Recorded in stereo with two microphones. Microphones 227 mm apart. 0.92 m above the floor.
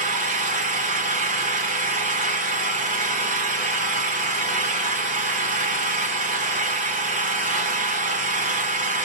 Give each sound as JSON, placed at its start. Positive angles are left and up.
{"t": 0.0, "sound": "an engine running", "side_deg": -35, "distance_m": 1.0}